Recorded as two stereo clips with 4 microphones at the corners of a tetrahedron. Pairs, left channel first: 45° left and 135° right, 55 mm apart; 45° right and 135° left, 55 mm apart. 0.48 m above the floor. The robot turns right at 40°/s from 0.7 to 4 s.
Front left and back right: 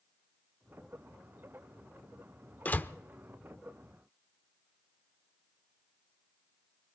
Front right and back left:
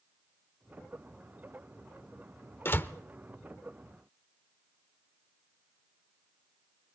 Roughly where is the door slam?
Ahead.